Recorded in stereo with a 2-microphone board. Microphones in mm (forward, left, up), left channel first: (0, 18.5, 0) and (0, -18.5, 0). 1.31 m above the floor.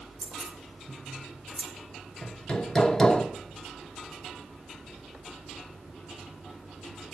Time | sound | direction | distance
0.2 | keys jangling | 10° right (ahead or behind) | 4.5 m
2.2 | hammering | 20° left (ahead or behind) | 0.9 m